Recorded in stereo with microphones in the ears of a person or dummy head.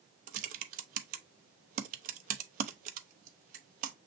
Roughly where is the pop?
I don't hear a pop.